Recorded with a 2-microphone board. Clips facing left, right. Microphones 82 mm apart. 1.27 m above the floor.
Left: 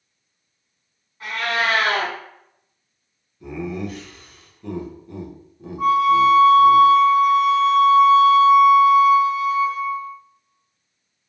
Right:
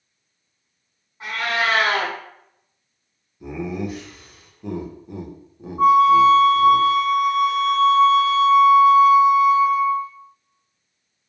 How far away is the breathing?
I don't hear breathing.